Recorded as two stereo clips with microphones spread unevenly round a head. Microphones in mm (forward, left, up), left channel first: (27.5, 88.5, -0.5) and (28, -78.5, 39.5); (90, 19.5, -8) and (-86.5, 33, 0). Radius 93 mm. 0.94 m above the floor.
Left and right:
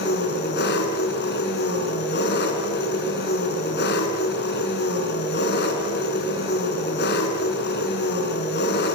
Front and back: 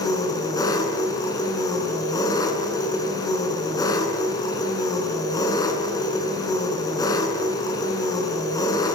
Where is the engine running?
65° left, 6.5 m.